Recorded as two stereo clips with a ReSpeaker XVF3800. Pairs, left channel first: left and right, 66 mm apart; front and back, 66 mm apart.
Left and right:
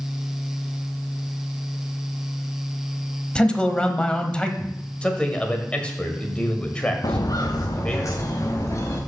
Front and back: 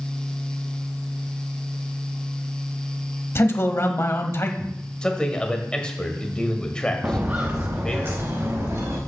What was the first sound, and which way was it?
A man speaking, 20° left.